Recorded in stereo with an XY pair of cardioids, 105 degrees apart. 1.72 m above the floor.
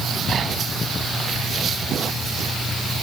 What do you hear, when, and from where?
Only background noise.